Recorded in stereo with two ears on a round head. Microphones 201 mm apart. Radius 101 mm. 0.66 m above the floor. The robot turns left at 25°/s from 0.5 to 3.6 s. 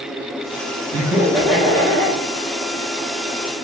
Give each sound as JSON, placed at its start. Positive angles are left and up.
{"t": 0.9, "sound": "laughter", "azimuth_deg": -165, "distance_m": 0.9}